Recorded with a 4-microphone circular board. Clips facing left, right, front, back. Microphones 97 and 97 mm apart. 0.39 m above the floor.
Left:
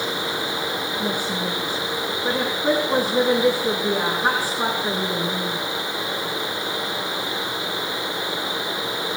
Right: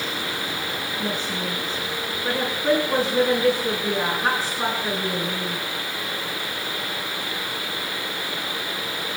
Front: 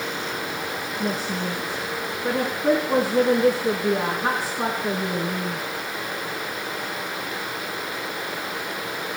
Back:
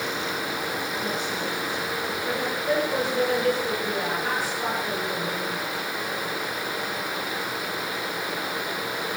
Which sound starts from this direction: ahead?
A woman speaking, at 1.0 s.